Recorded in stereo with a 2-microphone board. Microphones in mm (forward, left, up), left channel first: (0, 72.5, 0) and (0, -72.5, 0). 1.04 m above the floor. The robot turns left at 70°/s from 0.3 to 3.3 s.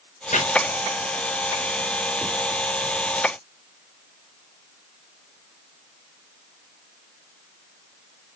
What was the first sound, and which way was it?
Chopping, 65° left (ahead or behind).